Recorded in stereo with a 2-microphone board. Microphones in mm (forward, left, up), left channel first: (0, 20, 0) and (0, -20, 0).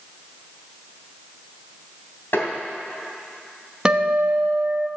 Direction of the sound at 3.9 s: 20° right (ahead or behind).